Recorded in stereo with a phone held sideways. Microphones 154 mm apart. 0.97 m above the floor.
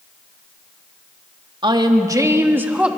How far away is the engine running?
I don't hear an engine running.